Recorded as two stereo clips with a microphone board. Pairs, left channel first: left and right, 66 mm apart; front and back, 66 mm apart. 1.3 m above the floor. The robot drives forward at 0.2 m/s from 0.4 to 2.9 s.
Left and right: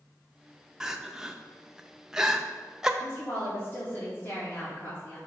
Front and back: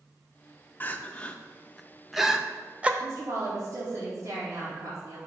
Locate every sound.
0.8 s crying: 20° right, 0.5 m; by 2.9 s 155° right, 0.5 m
3.0 s a woman speaking: 150° left, 2 m